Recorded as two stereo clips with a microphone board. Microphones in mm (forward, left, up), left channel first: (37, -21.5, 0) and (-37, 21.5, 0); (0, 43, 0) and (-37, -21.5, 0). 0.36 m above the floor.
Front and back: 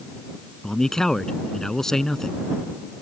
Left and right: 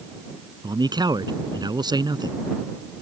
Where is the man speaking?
115° right.